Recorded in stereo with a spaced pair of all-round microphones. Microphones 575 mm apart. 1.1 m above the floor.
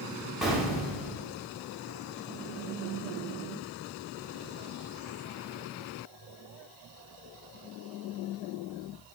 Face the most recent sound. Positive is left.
turn(degrees=0)  # may be behind; listen again after turning